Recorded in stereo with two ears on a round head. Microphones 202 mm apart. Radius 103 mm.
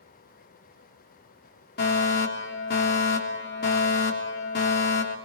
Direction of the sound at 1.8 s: 45° left (ahead or behind).